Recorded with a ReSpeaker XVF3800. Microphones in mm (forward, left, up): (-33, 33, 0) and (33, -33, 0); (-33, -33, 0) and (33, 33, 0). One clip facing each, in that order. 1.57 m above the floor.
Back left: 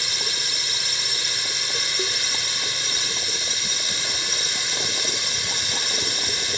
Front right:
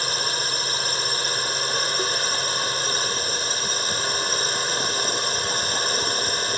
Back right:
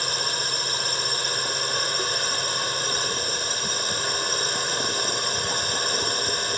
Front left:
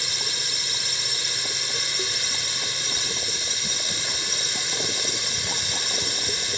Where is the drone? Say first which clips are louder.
Front right 5 dB, back right 6 dB; 95° right.